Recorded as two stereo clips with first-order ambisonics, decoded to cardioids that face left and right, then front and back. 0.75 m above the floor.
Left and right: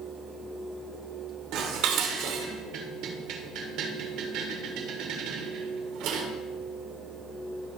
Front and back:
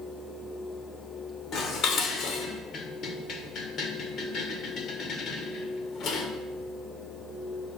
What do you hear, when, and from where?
1.5 s dishes clattering: 55° right, 1.5 m